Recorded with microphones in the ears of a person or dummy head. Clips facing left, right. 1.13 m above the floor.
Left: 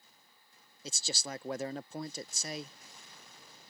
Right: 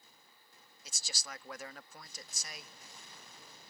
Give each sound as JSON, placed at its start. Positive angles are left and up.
{"t": 0.8, "sound": "a man speaking", "side_deg": 25}